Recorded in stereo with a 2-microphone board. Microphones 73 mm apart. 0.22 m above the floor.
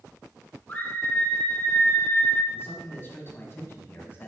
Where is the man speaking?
35° left (ahead or behind), 1.4 m.